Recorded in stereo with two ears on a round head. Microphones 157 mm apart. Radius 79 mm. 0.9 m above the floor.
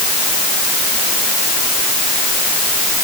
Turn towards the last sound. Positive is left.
No sound to turn to.